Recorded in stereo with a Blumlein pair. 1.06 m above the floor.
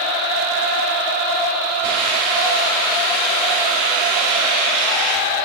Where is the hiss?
50° right, 2.5 m.